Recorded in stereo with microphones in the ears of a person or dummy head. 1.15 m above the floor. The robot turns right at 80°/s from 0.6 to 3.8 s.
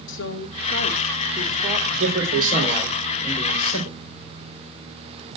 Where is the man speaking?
90° right, 3.5 m; by 4.0 s 60° left, 3.5 m.